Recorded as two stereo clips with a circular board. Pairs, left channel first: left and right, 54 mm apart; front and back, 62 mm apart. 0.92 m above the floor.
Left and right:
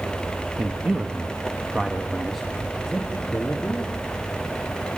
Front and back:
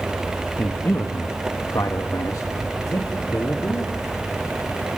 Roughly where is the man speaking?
Ahead right.